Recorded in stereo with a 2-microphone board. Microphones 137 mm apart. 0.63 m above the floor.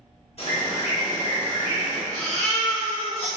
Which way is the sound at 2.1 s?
45° left (ahead or behind).